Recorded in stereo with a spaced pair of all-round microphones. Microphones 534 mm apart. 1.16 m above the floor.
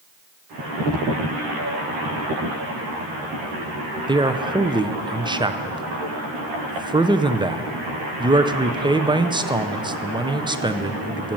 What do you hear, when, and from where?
4.1 s a man speaking: 10° right (ahead or behind), 0.6 m